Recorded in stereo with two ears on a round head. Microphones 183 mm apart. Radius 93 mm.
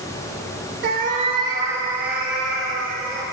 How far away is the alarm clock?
No alarm clock in this recording.